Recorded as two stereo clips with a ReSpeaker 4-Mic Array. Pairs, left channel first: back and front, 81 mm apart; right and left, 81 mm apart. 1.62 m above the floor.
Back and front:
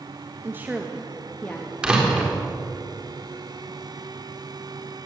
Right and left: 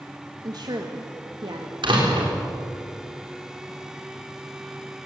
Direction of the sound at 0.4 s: 55° left.